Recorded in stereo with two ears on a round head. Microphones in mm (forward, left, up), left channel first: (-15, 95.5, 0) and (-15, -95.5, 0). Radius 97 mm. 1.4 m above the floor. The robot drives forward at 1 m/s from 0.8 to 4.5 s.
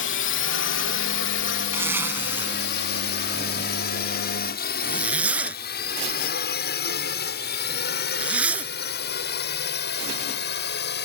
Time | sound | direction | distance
0.0 | a drone | 60° left (ahead or behind) | ?
1.7 | a zipper | 10° right (ahead or behind) | ?